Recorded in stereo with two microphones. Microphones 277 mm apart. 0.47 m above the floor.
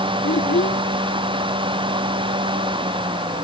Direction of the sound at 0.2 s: 40° left (ahead or behind).